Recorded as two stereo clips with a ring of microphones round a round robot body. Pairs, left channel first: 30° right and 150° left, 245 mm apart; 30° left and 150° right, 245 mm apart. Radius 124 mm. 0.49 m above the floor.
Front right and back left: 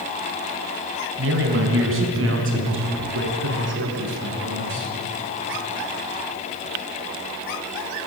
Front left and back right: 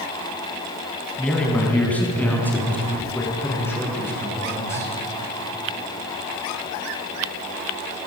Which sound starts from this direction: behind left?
A man speaking, at 1.2 s.